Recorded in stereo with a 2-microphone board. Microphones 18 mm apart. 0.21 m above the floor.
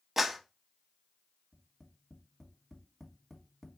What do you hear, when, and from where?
0.2 s a clap: 15° right (ahead or behind), 0.8 m
1.5 s tapping: 15° left (ahead or behind), 1.0 m